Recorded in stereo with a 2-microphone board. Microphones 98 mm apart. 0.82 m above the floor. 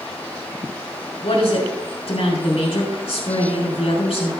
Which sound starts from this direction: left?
A woman speaking, at 1.2 s.